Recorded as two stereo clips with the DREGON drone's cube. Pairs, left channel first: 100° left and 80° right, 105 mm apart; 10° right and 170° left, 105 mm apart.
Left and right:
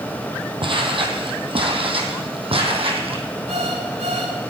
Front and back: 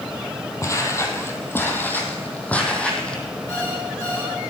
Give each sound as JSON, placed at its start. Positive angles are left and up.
{"t": 0.6, "sound": "footsteps", "azimuth_deg": -65, "distance_m": 2.5}
{"t": 3.5, "sound": "an alarm clock", "azimuth_deg": -70, "distance_m": 8.5}